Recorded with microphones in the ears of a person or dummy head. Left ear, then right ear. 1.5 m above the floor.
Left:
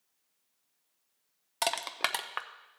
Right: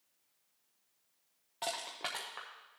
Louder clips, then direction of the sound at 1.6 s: Left 8 dB; 60° left (ahead or behind).